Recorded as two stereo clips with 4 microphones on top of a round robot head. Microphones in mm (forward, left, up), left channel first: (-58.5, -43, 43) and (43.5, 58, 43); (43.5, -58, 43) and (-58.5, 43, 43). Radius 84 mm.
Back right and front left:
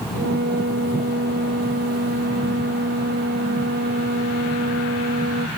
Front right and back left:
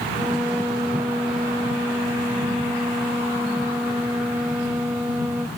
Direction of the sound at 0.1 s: 55° left.